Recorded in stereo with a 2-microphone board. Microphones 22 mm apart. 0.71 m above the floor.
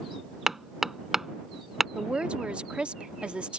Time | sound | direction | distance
0.5 | hammering | 15° right (ahead or behind) | ?
1.9 | a woman speaking | 55° right (ahead or behind) | ?